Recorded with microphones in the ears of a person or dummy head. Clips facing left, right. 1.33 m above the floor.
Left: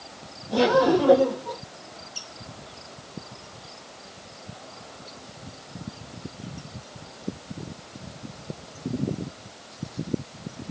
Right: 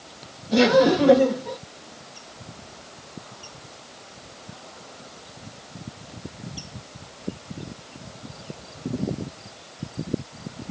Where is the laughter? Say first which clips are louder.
Right 2 dB; 30° right (ahead or behind), 2 m.